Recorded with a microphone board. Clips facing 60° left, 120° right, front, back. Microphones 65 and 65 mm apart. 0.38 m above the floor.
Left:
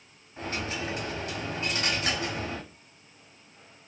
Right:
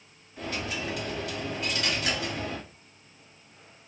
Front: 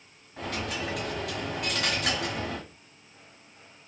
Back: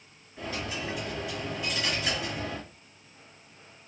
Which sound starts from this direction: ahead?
A dropped coin, at 0.4 s.